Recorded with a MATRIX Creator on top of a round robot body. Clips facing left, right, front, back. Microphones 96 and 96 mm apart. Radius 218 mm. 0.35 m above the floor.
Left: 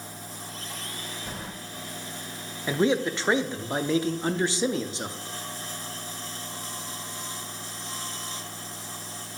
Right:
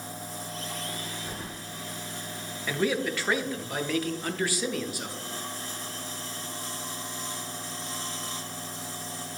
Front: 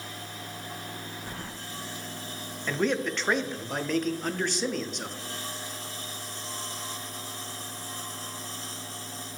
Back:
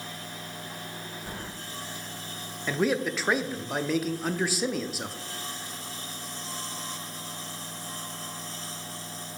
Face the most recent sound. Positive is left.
turn(degrees=100)